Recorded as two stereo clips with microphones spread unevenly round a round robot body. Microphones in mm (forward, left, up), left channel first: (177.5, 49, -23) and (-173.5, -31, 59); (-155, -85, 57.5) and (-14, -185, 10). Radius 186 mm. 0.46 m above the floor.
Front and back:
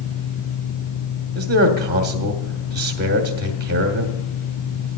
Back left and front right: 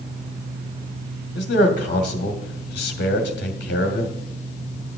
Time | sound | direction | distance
1.4 | a man speaking | 125° left | 1.1 m